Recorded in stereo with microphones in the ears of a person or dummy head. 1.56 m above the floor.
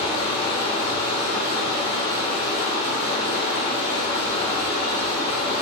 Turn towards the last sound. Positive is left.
turn(degrees=30)  # may be behind; listen again after turning